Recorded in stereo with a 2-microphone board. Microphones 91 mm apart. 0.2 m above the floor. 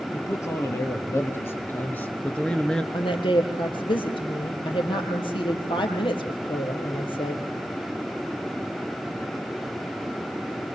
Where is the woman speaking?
70° left (ahead or behind), 4.5 m.